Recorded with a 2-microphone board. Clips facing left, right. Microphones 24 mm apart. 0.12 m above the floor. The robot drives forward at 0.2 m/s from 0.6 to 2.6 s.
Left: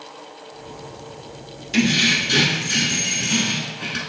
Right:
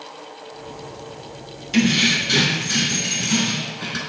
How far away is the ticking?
No ticking in this recording.